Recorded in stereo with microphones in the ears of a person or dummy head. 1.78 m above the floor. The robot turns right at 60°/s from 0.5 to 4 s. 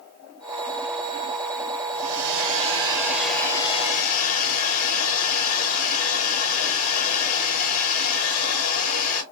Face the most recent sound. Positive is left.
turn(degrees=45)